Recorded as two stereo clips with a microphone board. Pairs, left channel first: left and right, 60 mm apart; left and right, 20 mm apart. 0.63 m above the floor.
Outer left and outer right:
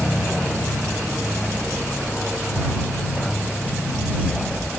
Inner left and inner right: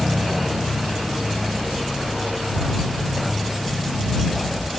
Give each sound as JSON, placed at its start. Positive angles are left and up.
{"t": 0.0, "sound": "an aircraft", "side_deg": 0}